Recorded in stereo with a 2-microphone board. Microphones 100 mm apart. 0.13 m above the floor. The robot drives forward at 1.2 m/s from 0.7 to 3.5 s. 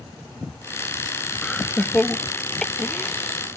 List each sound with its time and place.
1.4 s laughter: 10° left (ahead or behind); by 3.4 s 5° left (ahead or behind)